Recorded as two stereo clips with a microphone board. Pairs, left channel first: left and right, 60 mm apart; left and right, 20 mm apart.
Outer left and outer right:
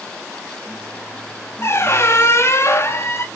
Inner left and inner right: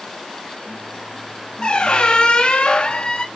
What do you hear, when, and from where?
1.6 s a squeak: 45° left (ahead or behind), 1.1 m